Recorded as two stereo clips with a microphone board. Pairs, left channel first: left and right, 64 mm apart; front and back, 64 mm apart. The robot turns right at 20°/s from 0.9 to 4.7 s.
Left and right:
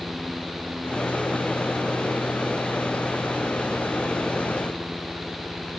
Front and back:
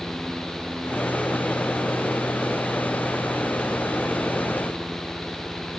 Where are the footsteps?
No footsteps in this recording.